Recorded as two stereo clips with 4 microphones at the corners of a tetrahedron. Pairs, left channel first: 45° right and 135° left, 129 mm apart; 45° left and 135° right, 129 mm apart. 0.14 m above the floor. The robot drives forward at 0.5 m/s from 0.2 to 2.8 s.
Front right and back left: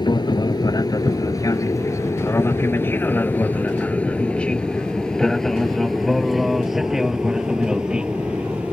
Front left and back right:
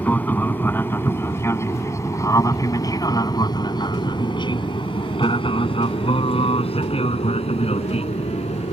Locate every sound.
0.0 s an aircraft: 25° right; by 8.7 s 55° left